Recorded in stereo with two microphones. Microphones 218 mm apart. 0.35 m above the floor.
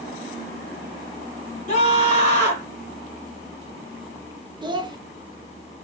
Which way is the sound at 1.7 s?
35° left (ahead or behind).